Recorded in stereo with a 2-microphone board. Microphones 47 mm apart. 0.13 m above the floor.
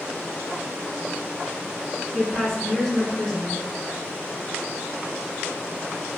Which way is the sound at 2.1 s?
10° left (ahead or behind).